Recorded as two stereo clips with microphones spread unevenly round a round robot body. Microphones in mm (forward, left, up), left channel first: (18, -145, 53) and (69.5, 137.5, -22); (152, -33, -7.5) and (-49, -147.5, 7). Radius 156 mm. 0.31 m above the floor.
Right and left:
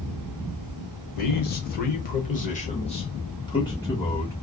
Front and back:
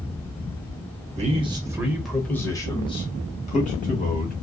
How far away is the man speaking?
About 1.1 m.